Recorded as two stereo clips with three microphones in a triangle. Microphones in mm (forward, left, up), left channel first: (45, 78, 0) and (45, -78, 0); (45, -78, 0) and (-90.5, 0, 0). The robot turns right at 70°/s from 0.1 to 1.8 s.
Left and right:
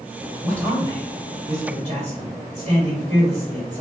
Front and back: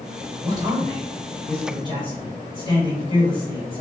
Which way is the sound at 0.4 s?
170° right.